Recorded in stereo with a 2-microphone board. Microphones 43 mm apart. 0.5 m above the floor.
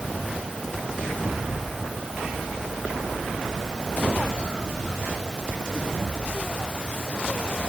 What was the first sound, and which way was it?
Only background noise.